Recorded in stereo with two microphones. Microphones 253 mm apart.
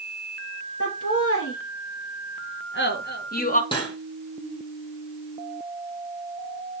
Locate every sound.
0.8 s laughter: 65° left (ahead or behind), 3.5 m; by 3.6 s 30° left (ahead or behind), 1.7 m
3.7 s cutlery clinking: 20° left (ahead or behind), 3.5 m